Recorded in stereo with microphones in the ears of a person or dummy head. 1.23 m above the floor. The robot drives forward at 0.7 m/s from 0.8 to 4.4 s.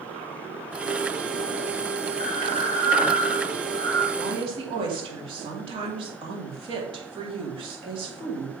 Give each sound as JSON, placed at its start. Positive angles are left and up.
{"t": 2.2, "sound": "breathing", "side_deg": 35, "distance_m": 1.7}
{"t": 4.1, "sound": "a woman speaking", "side_deg": -25, "distance_m": 2.5}